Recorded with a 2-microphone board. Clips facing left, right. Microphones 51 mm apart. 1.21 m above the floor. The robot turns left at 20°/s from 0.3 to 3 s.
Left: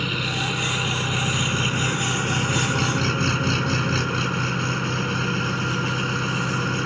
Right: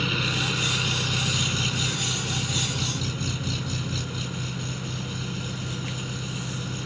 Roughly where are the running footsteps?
I don't hear running footsteps.